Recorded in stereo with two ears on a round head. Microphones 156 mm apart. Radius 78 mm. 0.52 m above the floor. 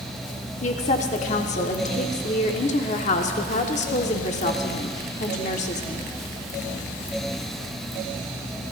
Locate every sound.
0.6 s a woman speaking: 45° left (ahead or behind), 1.0 m